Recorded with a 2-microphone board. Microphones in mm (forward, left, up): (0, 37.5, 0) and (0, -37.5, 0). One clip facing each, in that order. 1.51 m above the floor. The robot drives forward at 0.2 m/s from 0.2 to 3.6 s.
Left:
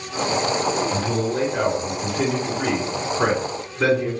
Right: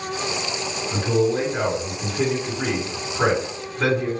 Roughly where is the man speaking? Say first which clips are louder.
Right 2 dB; centre.